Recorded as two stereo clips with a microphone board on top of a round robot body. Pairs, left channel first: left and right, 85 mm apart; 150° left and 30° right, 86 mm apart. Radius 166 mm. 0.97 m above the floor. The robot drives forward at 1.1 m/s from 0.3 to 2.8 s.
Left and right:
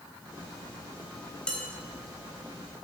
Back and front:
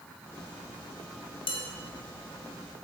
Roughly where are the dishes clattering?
Behind.